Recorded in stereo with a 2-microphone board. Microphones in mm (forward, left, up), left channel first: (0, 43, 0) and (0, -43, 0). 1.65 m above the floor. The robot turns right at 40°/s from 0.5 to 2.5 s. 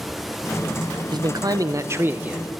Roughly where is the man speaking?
Right.